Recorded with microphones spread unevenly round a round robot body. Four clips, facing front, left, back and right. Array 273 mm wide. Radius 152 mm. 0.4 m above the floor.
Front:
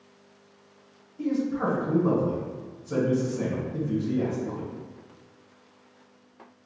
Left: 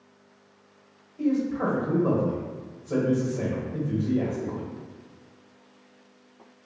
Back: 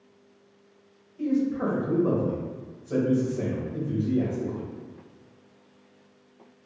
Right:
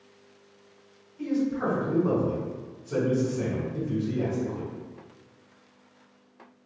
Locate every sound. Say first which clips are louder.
1.2 s a man speaking: left 2 dB, back 1 dB; 100° left, 1.4 m